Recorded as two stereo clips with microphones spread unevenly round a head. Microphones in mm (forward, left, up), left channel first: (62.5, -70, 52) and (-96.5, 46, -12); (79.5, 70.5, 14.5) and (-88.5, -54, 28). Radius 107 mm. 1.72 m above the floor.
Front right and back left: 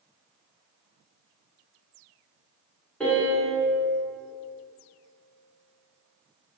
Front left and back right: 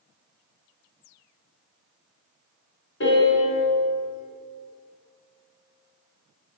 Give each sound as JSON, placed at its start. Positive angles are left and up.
{"t": 3.0, "sound": "a piano", "azimuth_deg": 25, "distance_m": 1.6}